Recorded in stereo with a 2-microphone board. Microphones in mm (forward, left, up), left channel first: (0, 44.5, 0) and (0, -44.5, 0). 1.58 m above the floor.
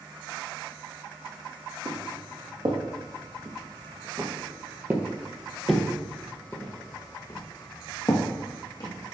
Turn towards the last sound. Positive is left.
turn(degrees=60)  # may be behind; listen again after turning